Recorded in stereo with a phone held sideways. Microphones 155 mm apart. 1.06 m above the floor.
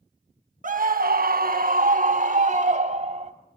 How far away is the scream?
About 1.3 m.